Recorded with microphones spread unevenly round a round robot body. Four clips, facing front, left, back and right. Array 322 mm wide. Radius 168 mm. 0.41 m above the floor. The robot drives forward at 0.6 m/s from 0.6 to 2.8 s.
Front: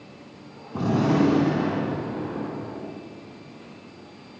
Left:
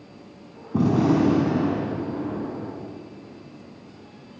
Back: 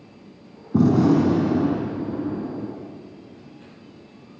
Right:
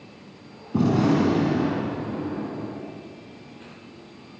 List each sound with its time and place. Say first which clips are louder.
0.7 s a gunshot: left 1 dB, back 5 dB; straight behind, 3.5 m